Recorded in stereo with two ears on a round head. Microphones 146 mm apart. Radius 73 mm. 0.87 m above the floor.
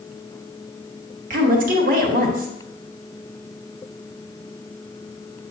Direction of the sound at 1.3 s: 55° right (ahead or behind).